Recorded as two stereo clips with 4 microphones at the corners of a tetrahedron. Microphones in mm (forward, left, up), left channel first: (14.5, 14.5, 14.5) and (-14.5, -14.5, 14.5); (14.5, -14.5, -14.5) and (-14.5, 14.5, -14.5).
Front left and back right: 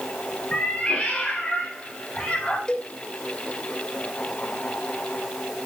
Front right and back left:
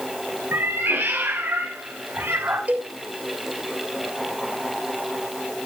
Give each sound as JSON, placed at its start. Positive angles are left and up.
{"t": 0.5, "sound": "a cat meowing", "azimuth_deg": 110, "distance_m": 4.0}
{"t": 2.7, "sound": "a cowbell", "azimuth_deg": 105, "distance_m": 2.5}